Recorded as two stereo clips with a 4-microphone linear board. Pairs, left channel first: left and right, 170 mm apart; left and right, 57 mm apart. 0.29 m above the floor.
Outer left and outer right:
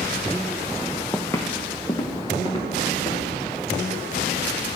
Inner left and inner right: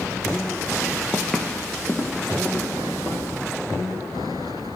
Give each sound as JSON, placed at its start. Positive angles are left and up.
{"t": 1.1, "sound": "footsteps", "side_deg": 5, "distance_m": 0.7}